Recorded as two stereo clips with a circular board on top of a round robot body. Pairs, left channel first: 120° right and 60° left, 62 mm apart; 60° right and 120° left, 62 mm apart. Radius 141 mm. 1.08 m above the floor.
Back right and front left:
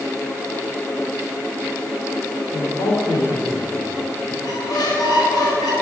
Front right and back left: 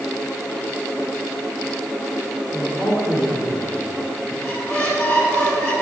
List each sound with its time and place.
2.5 s a man speaking: 120° right, 3.5 m; by 4.3 s 90° right, 3 m
4.4 s a squeak: 115° right, 4 m